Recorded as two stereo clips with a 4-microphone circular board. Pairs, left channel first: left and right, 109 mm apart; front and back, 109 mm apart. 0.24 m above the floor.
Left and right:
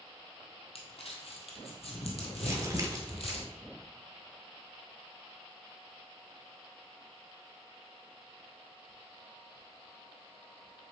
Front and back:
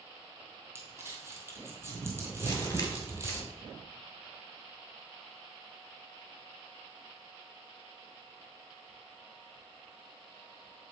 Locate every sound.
0.8 s crumpling: 115° left, 1.6 m
2.4 s crumpling: 50° right, 1.4 m